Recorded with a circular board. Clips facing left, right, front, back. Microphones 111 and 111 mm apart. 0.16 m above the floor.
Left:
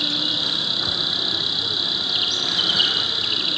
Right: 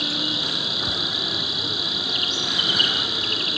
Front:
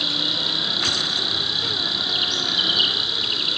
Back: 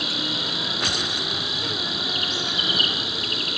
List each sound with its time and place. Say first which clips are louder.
0.0 s an insect: even, even; 135° right, 4.5 m